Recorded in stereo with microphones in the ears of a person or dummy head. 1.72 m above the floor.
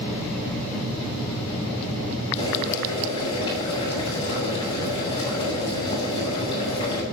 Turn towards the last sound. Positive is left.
turn(degrees=30)  # may be behind; listen again after turning